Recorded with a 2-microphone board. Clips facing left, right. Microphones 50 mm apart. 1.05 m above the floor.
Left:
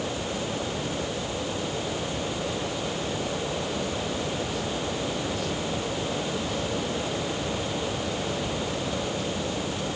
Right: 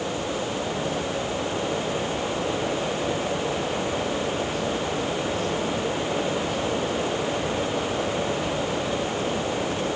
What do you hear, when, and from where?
Only background noise.